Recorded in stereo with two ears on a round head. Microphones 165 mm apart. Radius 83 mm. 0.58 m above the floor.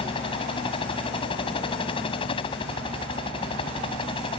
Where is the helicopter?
30° left (ahead or behind).